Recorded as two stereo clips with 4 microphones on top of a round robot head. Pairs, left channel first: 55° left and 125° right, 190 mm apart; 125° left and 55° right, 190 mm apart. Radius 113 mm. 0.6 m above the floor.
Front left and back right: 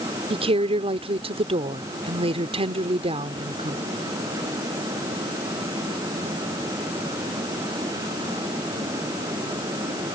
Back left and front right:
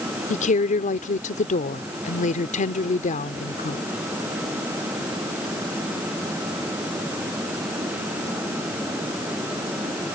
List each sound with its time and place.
0.3 s a woman speaking: 175° left